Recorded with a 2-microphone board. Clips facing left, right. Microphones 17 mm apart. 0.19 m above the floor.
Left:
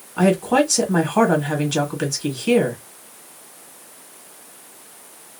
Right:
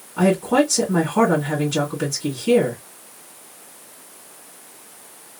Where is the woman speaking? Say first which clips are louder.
Even; 45° left (ahead or behind), 1.7 m.